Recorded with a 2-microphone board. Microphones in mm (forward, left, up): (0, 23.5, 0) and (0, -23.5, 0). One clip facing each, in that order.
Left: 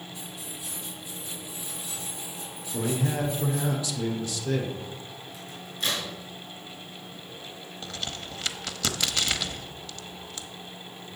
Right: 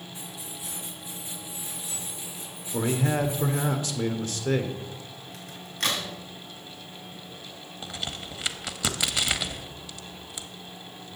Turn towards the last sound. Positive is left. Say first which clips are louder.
# right 1 dB
turn(degrees=-10)  # may be behind; listen again after turning